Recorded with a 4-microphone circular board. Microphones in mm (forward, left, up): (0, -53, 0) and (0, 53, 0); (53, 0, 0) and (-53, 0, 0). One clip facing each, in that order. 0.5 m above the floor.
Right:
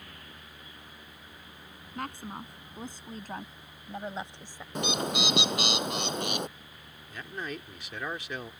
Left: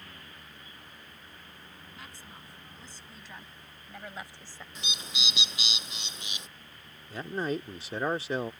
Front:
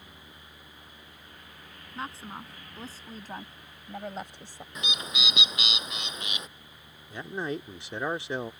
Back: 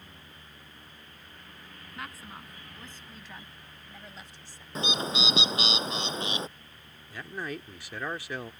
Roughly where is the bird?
Behind right.